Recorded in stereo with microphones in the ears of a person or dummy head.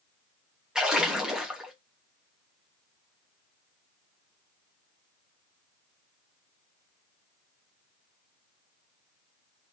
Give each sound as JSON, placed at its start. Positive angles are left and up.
{"t": 0.8, "sound": "a splash", "side_deg": -5, "distance_m": 0.7}